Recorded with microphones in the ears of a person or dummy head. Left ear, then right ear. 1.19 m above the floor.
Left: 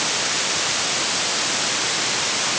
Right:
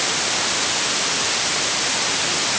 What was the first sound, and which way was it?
Only background noise.